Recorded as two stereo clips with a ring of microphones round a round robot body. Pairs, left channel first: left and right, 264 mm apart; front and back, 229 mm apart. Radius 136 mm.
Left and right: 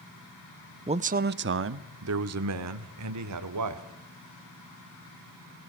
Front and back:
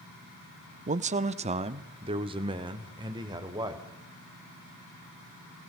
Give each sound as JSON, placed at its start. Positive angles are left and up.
{"t": 0.9, "sound": "a man speaking", "azimuth_deg": -145, "distance_m": 0.8}